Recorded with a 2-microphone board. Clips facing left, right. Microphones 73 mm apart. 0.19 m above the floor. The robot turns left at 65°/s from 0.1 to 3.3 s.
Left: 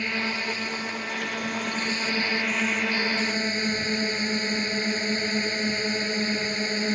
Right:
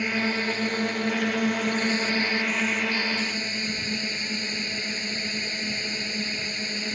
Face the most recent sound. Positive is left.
turn(degrees=140)